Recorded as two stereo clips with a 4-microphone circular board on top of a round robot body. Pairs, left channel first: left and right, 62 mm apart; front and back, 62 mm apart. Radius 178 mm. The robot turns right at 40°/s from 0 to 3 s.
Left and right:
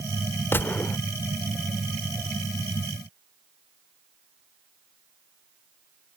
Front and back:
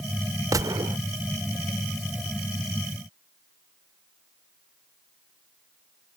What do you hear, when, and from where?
0.5 s a gunshot: 145° left; by 1.0 s 160° left